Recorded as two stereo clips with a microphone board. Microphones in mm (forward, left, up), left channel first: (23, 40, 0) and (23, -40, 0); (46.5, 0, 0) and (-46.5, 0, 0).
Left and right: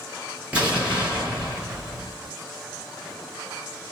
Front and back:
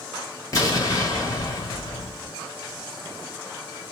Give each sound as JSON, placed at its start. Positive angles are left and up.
{"t": 0.5, "sound": "an explosion", "azimuth_deg": -20, "distance_m": 1.5}